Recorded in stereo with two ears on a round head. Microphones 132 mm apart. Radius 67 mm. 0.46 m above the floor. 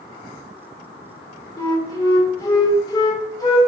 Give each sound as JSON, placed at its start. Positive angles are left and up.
{"t": 1.6, "sound": "a flute", "side_deg": 25, "distance_m": 0.5}